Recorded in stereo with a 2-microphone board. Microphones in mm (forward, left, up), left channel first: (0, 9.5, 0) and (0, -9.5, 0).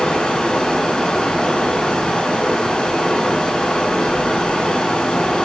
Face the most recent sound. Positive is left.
turn(degrees=60)  # may be behind; listen again after turning